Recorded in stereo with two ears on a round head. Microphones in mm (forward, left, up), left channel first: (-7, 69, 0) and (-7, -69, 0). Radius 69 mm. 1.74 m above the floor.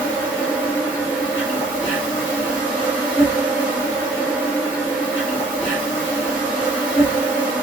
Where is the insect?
10° left (ahead or behind), 1.3 m.